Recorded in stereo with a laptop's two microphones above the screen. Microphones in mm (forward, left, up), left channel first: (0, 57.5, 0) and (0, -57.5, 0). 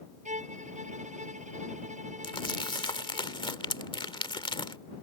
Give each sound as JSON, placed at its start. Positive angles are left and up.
{"t": 0.2, "sound": "a violin", "side_deg": -85}
{"t": 2.2, "sound": "crumpling", "side_deg": 45}